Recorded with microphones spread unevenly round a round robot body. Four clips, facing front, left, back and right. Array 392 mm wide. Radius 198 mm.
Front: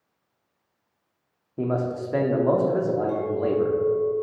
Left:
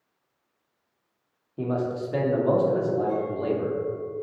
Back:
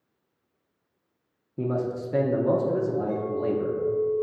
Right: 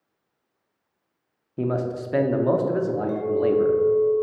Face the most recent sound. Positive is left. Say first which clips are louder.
# right 5 dB, front 2 dB
turn(degrees=-50)